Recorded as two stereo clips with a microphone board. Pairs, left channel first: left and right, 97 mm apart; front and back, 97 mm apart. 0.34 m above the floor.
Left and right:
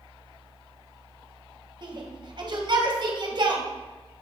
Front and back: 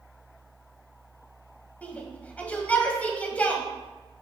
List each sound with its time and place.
1.8 s a shout: 70° right, 1.9 m